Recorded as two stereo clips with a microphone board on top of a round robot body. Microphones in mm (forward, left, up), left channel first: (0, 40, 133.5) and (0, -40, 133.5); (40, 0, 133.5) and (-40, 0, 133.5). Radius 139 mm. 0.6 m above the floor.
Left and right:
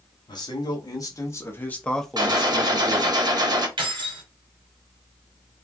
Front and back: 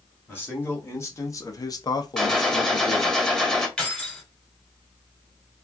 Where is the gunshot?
85° right, 1.5 m.